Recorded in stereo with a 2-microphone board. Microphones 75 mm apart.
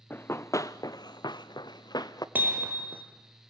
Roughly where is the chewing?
No chewing in this recording.